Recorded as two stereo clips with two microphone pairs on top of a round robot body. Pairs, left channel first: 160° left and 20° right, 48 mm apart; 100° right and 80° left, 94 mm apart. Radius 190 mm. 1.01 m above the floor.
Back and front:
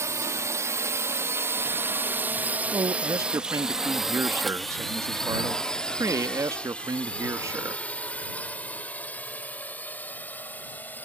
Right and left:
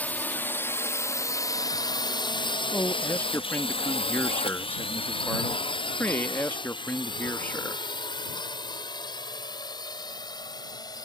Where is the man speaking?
30° right.